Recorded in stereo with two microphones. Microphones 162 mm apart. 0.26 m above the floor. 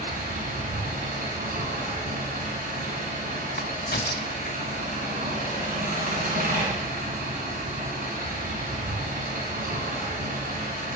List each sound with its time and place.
0.0 s an engine running: 60° right (ahead or behind), 2.0 m
3.6 s a crack: 75° left (ahead or behind), 0.5 m